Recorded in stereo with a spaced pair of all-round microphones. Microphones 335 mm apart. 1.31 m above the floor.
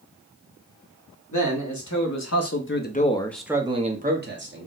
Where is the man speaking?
60° left (ahead or behind), 1.1 m; by 4.7 s 35° right (ahead or behind), 1.0 m.